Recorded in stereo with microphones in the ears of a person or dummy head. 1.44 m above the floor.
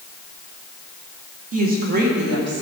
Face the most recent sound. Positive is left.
turn(degrees=-65)  # may be behind; listen again after turning